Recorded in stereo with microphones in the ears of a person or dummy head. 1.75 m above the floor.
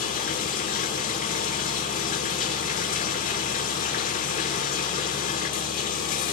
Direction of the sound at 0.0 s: 40° left (ahead or behind).